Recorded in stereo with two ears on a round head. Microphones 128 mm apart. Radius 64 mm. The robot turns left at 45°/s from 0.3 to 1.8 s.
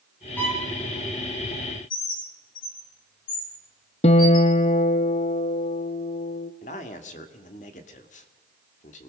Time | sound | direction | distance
0.4 | a violin | 15° left (ahead or behind) | 6 m
1.9 | a bird | 70° left (ahead or behind) | 5.5 m
4.0 | a guitar | 45° left (ahead or behind) | 1.0 m
6.6 | a man speaking | 55° left (ahead or behind) | 2 m